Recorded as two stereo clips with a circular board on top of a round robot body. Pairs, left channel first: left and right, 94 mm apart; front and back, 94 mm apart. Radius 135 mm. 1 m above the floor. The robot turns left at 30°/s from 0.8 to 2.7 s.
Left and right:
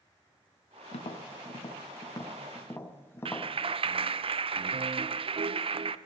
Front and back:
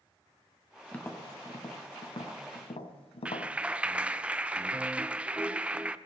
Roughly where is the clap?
Right.